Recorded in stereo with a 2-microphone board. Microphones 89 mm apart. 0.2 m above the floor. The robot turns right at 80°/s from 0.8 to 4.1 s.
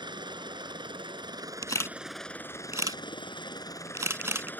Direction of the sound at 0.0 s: 105° right.